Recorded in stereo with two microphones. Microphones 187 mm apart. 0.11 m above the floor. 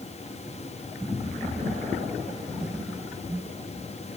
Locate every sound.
Only background noise.